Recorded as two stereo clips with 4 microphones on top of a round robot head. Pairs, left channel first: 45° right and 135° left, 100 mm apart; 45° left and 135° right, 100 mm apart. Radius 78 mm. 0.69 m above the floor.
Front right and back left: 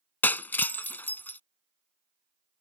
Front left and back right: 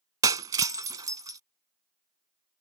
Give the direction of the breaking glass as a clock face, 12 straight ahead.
3 o'clock.